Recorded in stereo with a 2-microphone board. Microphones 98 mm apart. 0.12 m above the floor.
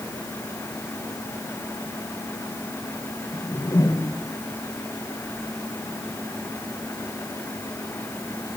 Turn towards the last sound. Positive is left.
turn(degrees=35)  # may be behind; listen again after turning